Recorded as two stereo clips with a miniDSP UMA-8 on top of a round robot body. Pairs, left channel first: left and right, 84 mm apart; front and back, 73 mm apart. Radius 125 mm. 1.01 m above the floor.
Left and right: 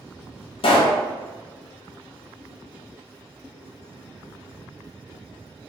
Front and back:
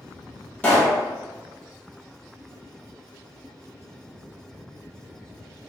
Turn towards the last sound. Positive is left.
turn(degrees=75)